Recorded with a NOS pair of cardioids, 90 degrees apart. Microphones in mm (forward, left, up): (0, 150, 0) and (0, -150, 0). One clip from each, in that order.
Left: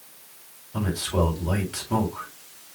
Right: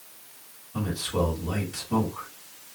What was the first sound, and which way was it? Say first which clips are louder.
A man speaking: left 2 dB; 50° left.